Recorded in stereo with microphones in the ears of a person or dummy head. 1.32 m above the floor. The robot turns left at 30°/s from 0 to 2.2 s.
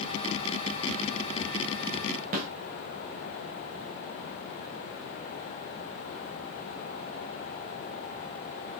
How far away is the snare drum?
About 3.5 m.